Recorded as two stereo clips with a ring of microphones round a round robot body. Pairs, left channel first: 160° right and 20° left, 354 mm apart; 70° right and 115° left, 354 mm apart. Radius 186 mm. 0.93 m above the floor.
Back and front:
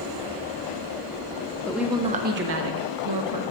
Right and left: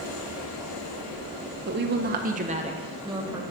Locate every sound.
1.7 s a woman speaking: 120° left, 0.7 m; by 3.4 s 35° left, 1.1 m